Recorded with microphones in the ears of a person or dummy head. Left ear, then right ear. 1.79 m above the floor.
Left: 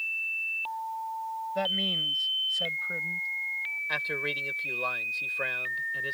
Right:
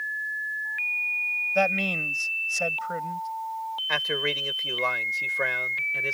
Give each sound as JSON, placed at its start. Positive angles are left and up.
{"t": 1.6, "sound": "a man speaking", "side_deg": -35}
{"t": 3.9, "sound": "a man speaking", "side_deg": -20}